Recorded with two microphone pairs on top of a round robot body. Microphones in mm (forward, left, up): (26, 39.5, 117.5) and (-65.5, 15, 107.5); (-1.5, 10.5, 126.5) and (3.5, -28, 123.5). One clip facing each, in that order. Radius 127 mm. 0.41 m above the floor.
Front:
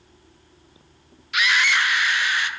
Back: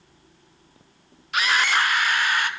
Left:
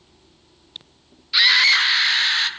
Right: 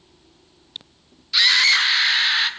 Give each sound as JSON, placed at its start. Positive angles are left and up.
{"t": 1.3, "sound": "a scream", "azimuth_deg": 175, "distance_m": 1.7}